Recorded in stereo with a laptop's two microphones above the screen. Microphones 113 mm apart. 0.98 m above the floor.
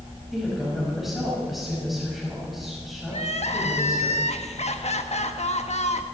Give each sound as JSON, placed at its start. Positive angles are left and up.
{"t": 0.3, "sound": "a woman speaking", "side_deg": 0, "distance_m": 5.5}
{"t": 3.1, "sound": "crying", "side_deg": 75, "distance_m": 1.0}